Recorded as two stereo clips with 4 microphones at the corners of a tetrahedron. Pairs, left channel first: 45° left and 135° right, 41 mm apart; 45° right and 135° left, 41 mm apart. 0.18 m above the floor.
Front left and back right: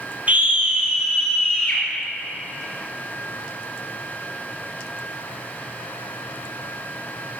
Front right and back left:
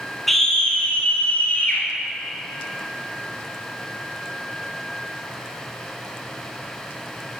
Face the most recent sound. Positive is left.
turn(degrees=-35)